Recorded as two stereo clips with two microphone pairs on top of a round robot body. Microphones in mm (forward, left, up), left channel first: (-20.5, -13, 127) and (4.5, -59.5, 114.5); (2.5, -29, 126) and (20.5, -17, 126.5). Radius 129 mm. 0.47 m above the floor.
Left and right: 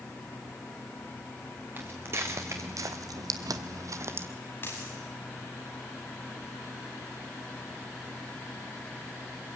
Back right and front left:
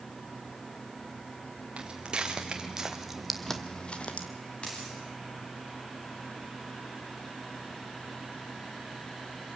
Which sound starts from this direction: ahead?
Footsteps, at 1.8 s.